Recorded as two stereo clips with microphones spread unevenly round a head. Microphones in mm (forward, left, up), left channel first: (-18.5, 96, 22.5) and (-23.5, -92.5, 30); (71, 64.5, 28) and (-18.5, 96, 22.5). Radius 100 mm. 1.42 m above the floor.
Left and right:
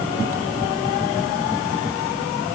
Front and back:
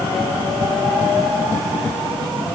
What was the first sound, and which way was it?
Only background noise.